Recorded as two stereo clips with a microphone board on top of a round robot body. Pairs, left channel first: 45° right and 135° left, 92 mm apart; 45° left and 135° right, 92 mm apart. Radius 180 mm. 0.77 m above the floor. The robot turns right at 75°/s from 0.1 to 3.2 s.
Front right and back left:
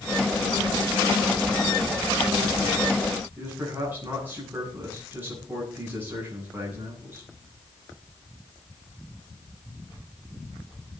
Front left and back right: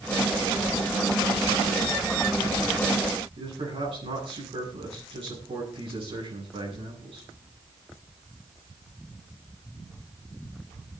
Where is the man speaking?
155° right, 10 m.